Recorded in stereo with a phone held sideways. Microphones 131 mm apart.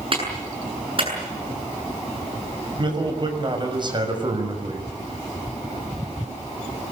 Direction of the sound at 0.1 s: 45° right (ahead or behind).